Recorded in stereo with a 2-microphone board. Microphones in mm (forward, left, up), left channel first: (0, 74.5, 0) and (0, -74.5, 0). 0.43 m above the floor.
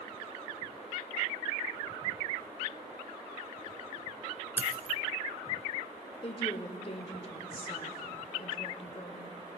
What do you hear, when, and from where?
4.6 s a dropped coin: 15° right (ahead or behind), 0.5 m
6.2 s a woman speaking: 40° left (ahead or behind), 0.9 m